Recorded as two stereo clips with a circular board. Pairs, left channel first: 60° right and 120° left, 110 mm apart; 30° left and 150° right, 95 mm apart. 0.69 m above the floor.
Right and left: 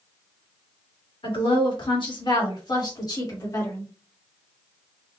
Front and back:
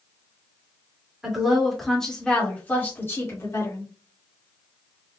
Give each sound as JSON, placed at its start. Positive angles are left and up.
{"t": 1.2, "sound": "a woman speaking", "azimuth_deg": -65, "distance_m": 1.8}